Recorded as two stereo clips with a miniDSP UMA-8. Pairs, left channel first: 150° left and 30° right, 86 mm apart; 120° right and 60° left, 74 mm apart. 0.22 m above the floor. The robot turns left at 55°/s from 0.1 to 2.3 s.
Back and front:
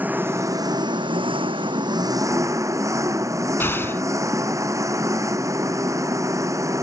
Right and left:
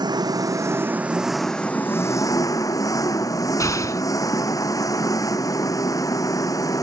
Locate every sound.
0.0 s an engine running: 40° left; by 6.8 s 80° right
3.6 s an explosion: 150° right